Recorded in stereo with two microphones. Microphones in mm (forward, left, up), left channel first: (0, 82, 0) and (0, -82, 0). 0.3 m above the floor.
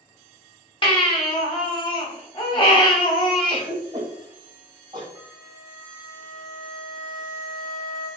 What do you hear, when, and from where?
0.8 s a baby crying: 35° left (ahead or behind), 0.6 m
3.5 s a cough: 30° right (ahead or behind), 1.4 m
5.2 s a flute: 30° right (ahead or behind), 1.6 m